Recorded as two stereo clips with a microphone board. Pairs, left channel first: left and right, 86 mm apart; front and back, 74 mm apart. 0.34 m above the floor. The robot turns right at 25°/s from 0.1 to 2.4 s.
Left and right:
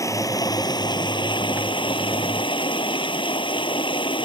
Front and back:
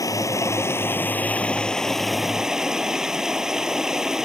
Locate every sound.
0.0 s running water: 40° left; by 4.3 s 100° left